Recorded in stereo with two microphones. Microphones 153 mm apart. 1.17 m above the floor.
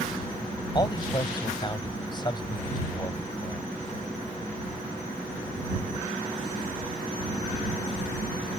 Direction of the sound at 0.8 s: 30° left (ahead or behind).